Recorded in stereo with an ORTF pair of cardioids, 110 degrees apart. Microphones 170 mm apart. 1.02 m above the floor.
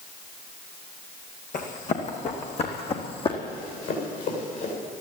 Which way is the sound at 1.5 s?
50° left.